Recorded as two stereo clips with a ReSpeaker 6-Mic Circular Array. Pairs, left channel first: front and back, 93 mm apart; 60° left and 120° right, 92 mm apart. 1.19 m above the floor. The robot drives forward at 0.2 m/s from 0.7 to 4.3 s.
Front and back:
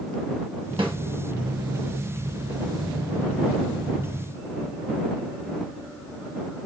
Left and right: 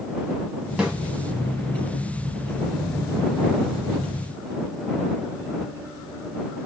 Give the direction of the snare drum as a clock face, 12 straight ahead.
7 o'clock.